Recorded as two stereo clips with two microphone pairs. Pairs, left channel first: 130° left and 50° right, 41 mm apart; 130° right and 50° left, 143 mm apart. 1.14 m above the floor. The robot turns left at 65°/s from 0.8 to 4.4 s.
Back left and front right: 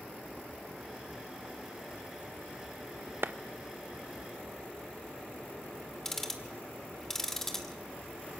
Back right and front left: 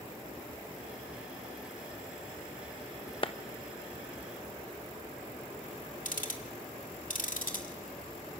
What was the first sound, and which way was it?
A clap, 80° right.